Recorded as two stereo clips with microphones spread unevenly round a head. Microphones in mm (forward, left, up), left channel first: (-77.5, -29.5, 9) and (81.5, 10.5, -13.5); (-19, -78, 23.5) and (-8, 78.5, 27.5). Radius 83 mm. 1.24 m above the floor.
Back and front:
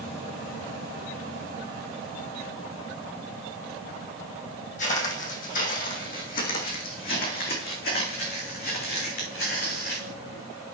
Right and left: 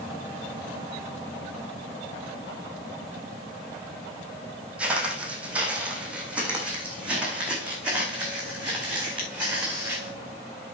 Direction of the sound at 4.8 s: 165° left.